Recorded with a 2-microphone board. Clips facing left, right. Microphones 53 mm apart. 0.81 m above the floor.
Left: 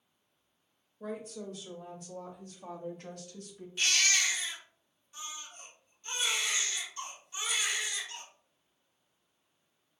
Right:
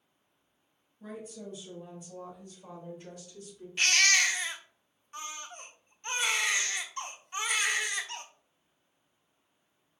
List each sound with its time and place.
1.0 s a woman speaking: 80° left, 2.5 m; by 3.7 s 60° left (ahead or behind), 1.3 m
3.8 s a baby crying: 55° right (ahead or behind), 0.7 m